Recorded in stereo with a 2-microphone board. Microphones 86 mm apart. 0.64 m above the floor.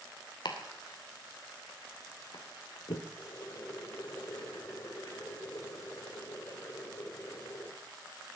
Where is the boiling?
45° left (ahead or behind), 3.5 m.